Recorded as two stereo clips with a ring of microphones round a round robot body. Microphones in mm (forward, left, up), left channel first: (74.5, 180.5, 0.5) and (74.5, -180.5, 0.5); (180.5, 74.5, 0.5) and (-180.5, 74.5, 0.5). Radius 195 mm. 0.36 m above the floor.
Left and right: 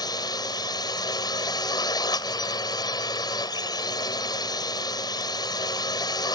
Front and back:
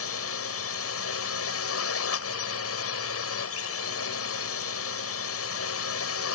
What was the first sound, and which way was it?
A drone, 15° left.